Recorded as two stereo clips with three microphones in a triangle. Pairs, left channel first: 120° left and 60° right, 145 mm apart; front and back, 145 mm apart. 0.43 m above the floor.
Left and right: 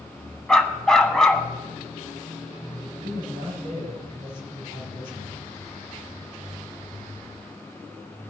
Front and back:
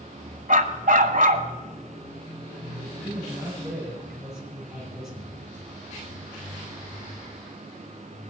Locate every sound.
0.5 s a dog barking: 155° right, 1.1 m
3.0 s a man speaking: 90° right, 6.5 m